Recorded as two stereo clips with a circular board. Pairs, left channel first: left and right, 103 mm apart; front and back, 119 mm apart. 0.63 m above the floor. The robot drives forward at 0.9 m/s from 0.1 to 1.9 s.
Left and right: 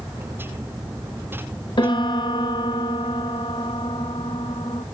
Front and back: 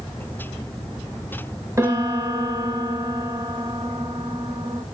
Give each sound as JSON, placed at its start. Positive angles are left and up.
{"t": 1.8, "sound": "a piano", "azimuth_deg": 115, "distance_m": 0.6}